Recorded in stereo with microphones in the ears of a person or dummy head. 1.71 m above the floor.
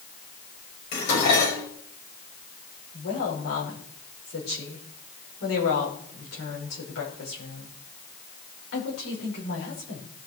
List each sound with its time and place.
0.9 s dishes clattering: 80° left, 5.5 m
2.9 s a woman speaking: 75° left (ahead or behind), 6 m